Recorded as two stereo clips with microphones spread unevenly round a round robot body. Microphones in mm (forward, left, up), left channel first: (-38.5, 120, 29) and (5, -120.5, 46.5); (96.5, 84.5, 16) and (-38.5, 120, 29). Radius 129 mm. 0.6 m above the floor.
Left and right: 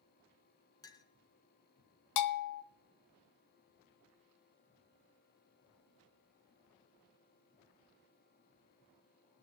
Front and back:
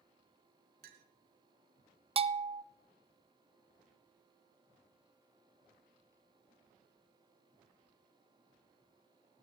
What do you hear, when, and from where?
0.8 s a clink: 175° left, 1.0 m
2.2 s a bell: 110° left, 0.6 m